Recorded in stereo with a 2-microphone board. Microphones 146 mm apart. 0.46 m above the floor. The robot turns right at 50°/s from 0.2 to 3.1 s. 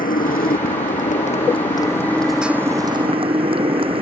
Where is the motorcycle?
75° left; by 4.0 s 140° right.